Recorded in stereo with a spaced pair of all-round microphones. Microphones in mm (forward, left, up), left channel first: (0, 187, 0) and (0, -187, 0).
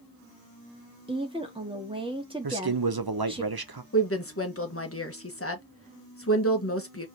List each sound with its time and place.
1.1 s a woman speaking: 15° right (ahead or behind), 1.9 m
2.4 s a man speaking: 75° right (ahead or behind), 0.9 m
3.9 s a woman speaking: 35° left (ahead or behind), 1.5 m